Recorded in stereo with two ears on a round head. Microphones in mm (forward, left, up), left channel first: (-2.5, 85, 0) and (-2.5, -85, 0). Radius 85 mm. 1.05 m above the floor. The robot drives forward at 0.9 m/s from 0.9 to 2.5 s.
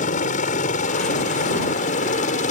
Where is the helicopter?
40° left (ahead or behind).